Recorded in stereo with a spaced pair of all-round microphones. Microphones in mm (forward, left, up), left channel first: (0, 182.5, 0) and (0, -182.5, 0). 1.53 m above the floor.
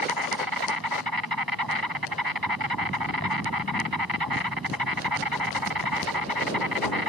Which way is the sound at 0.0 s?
75° right (ahead or behind).